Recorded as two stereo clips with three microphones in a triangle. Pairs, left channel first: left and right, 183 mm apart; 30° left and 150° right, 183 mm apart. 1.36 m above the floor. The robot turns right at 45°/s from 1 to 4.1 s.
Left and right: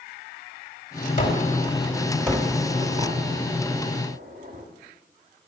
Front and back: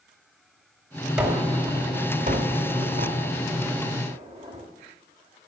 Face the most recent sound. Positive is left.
turn(degrees=-100)